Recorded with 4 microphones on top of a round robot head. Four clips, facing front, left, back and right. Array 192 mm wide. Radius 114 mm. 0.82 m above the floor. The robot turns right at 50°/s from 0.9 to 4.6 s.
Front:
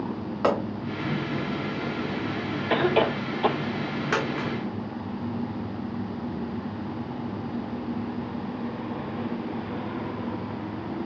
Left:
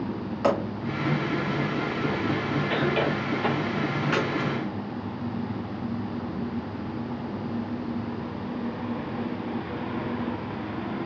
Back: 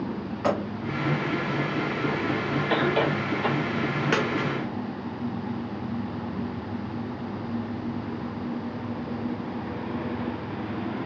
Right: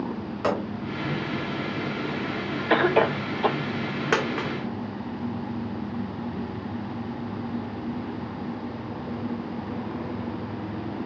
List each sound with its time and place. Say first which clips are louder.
0.4 s a pop: left 2 dB, front 2 dB; 10° left, 2.5 m
2.7 s a cough: right 7 dB, front 3 dB; 80° right, 0.7 m; by 3.6 s 35° right, 0.7 m
4.1 s a dropped coin: right 4 dB, even; 110° right, 1.6 m; by 4.5 s 95° right, 1.6 m